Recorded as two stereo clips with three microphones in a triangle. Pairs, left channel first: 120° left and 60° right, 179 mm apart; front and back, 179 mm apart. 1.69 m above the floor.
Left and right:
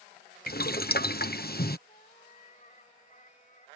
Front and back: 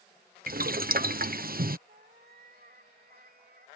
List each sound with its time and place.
0.5 s boiling: 150° left
1.9 s a cat meowing: 160° left